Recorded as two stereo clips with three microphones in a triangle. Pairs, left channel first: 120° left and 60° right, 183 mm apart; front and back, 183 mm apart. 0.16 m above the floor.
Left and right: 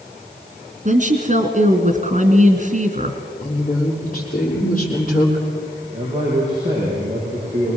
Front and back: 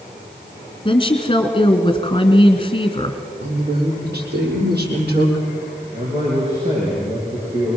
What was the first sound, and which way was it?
A woman speaking, 50° right.